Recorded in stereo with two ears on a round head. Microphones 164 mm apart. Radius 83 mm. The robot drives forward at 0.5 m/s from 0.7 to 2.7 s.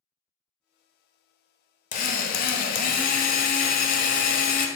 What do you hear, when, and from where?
1.9 s a drill: 40° left (ahead or behind), 0.6 m; by 4.7 s 50° left (ahead or behind), 0.5 m